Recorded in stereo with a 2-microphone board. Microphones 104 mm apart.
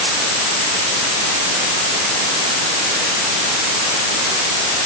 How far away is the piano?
I don't hear a piano.